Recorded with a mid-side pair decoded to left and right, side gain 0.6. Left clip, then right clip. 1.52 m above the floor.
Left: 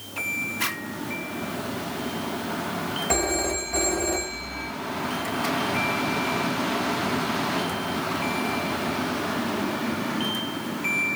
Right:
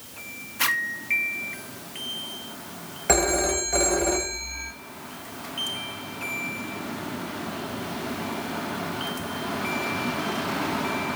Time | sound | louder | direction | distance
0.6 | a zipper | right 4 dB | 50° right | 2 m
3.1 | a phone ringing | right 5 dB | 65° right | 6.5 m